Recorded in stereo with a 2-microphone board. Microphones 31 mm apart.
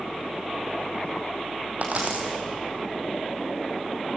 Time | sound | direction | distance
1.8 | a dropped coin | 50° right (ahead or behind) | 3.5 m